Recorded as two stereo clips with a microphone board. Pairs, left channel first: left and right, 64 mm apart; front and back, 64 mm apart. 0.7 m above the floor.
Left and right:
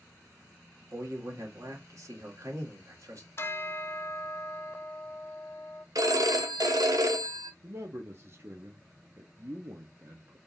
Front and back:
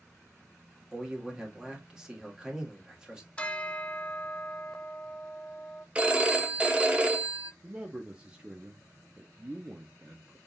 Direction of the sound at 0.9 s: 100° right.